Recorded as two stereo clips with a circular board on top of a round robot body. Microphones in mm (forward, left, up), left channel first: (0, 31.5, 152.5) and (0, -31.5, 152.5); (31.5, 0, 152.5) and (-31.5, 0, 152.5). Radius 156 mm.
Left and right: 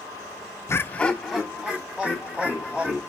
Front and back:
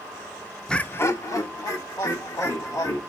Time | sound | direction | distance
0.7 | laughter | 75° left | 0.6 m